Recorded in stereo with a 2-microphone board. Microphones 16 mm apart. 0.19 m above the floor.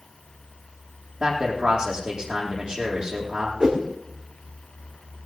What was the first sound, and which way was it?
A man speaking, 45° right (ahead or behind).